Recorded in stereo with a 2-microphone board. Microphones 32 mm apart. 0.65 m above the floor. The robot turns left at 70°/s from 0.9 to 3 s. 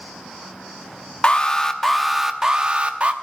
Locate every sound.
1.2 s an alarm: 55° left, 0.9 m; by 3.1 s 70° right, 0.9 m